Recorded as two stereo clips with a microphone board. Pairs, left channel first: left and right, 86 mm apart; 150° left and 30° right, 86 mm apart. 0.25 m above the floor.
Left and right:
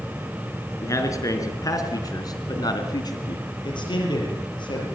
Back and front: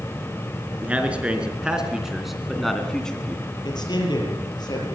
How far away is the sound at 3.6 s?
About 7.5 m.